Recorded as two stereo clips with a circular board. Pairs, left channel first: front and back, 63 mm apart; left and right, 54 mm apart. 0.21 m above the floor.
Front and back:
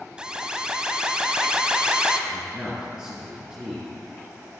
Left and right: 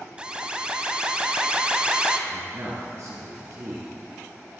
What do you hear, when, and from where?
0.2 s an alarm: 125° right, 0.7 m
2.3 s a man speaking: 105° right, 2.5 m